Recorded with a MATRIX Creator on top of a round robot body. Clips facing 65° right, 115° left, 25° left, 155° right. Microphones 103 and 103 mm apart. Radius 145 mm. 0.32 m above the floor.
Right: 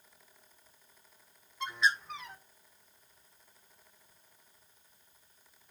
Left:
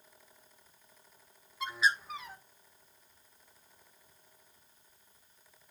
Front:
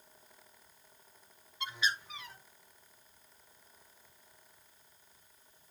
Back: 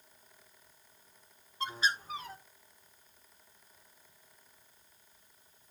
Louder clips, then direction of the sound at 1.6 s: Even, back 3 dB; 160° right.